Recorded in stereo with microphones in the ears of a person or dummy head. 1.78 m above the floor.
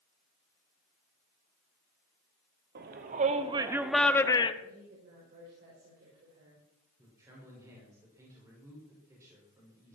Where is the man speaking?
20° right (ahead or behind), 6 m.